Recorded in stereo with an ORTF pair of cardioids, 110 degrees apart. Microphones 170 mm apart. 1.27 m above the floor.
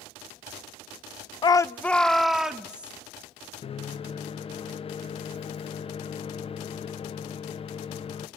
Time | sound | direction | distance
1.4 | a shout | 30° left | 0.5 m
3.6 | a microwave | 35° left | 0.6 m